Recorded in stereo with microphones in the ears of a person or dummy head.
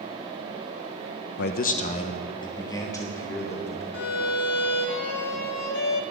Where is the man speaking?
65° left (ahead or behind), 0.6 m; by 3.8 s 15° left (ahead or behind), 2.5 m.